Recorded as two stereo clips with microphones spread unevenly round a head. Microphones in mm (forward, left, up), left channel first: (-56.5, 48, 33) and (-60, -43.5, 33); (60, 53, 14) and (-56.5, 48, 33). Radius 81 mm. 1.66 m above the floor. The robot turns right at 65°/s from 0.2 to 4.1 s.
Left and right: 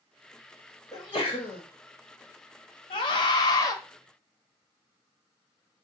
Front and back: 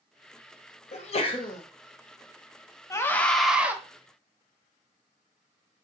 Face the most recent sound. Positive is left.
turn(degrees=145)